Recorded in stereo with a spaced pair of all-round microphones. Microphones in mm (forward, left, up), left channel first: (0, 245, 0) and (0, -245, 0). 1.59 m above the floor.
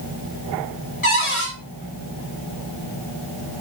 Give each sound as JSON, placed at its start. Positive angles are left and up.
{"t": 1.0, "sound": "a cupboard door", "side_deg": 75, "distance_m": 3.0}